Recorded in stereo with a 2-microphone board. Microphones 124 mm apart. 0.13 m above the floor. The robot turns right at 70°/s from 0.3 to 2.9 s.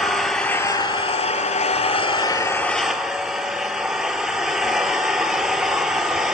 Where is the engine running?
Straight ahead, 0.7 m; by 6.3 s 175° right, 0.7 m.